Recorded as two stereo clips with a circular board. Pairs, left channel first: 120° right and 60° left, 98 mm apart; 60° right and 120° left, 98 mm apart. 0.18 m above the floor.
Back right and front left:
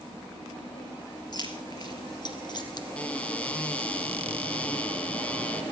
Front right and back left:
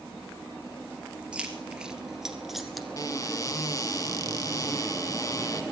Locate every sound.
1.3 s keys jangling: 160° right, 2.5 m; by 2.9 s 150° right, 1.5 m
3.0 s a cupboard door: 50° right, 1.5 m